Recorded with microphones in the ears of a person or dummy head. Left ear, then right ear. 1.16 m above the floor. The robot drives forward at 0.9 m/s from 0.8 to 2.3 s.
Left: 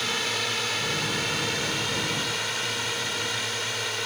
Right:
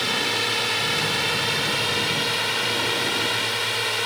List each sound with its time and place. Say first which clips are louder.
0.0 s a drone: right 4 dB; 15° right (ahead or behind); by 4.1 s 30° right (ahead or behind)